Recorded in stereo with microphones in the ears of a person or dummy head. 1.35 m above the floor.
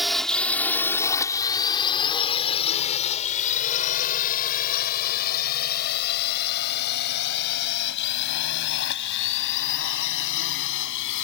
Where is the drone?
Centre (ahead or behind); by 11.2 s 70° left (ahead or behind).